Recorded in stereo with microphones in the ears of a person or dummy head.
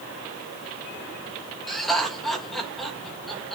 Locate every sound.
1.7 s laughter: centre (ahead or behind), 3.5 m